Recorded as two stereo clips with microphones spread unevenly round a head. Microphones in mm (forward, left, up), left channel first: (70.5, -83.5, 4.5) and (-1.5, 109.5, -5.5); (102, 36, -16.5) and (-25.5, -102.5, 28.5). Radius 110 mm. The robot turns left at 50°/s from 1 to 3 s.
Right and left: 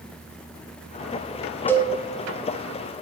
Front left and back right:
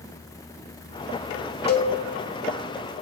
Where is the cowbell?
10° left, 2 m; by 1.9 s straight ahead, 2 m.